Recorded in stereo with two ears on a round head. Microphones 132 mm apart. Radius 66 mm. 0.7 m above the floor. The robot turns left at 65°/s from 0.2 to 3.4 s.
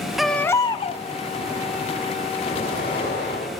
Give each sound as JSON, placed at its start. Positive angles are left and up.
{"t": 0.2, "sound": "a baby crying", "azimuth_deg": 180, "distance_m": 0.8}
{"t": 2.5, "sound": "an explosion", "azimuth_deg": 130, "distance_m": 6.0}